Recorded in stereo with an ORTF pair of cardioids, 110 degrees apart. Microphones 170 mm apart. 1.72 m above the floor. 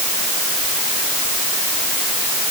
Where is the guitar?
No guitar in this recording.